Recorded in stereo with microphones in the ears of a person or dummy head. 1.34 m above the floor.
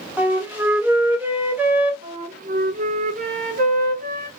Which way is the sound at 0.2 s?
Centre (ahead or behind).